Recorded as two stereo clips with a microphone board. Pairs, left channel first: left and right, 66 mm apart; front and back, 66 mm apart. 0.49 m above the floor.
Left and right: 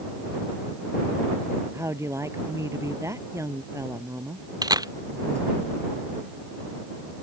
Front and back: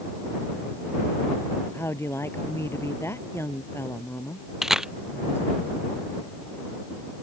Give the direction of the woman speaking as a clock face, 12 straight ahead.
2 o'clock.